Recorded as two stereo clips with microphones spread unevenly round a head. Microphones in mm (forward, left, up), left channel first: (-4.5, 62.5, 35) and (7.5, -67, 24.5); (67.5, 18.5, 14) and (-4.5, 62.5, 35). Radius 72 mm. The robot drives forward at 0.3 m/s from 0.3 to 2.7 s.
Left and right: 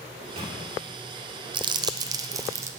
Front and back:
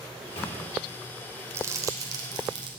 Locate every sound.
0.1 s a microwave: 40° right, 4 m
1.5 s crumpling: 140° right, 0.6 m; by 2.7 s 155° right, 0.9 m